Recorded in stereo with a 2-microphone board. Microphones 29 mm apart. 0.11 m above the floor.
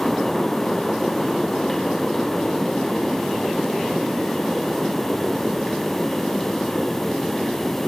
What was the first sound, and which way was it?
Only background noise.